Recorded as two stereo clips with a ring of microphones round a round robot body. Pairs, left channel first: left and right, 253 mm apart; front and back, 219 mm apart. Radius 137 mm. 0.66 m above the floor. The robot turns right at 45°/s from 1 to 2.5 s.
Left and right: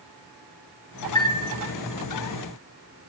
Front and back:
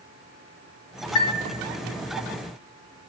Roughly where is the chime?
Ahead.